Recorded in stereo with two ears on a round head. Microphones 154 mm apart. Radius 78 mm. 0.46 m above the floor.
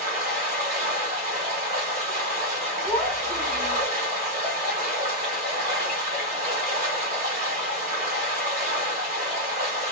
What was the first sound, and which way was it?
Running water, 40° right (ahead or behind).